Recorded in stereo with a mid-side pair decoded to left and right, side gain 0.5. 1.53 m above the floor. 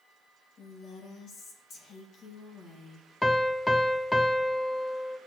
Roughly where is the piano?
Ahead.